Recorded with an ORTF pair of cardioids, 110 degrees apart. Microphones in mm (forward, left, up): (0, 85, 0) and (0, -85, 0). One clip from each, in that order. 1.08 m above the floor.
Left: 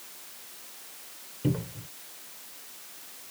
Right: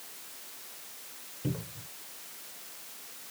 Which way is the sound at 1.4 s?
35° left.